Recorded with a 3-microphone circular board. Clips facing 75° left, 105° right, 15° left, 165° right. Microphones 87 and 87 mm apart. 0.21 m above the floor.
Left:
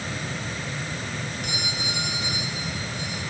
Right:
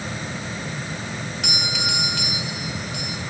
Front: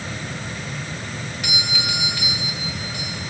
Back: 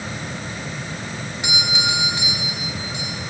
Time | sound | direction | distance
1.4 | a doorbell | 95° right | 6 m